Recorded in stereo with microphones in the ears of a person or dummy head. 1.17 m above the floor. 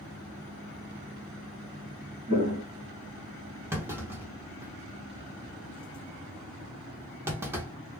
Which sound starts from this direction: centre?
A clunk, at 3.7 s.